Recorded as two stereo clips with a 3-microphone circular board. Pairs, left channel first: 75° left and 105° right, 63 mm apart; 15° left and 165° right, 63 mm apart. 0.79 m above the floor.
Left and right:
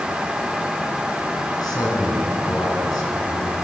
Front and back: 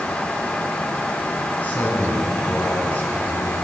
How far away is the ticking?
No ticking in this recording.